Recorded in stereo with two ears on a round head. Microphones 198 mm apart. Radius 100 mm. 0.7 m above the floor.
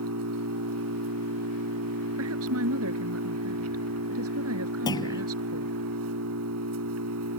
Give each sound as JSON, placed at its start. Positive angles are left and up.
{"t": 0.0, "sound": "an engine running", "side_deg": -75}
{"t": 2.2, "sound": "a woman speaking", "side_deg": -65}
{"t": 4.9, "sound": "a clunk", "side_deg": 15}